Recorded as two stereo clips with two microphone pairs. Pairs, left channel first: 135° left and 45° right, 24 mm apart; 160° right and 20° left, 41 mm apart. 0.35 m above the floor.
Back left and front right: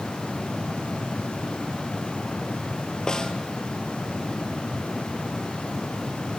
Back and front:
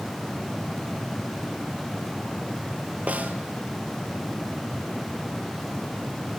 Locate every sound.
3.1 s a snare drum: 65° left, 1.6 m